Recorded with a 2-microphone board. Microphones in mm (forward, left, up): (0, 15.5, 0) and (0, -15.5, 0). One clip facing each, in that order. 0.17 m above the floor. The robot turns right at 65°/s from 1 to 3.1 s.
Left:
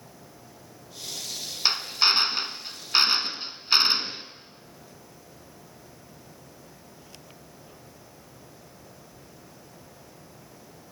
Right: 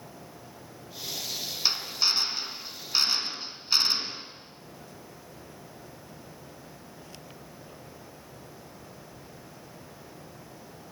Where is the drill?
35° left, 2 m; by 4.2 s 130° left, 2 m.